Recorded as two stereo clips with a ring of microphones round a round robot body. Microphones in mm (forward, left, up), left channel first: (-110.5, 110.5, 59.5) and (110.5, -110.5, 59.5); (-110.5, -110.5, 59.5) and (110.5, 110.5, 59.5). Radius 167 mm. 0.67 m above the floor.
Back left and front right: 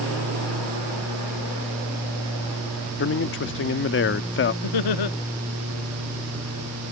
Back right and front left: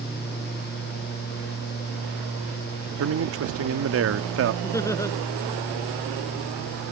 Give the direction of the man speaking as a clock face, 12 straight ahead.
9 o'clock.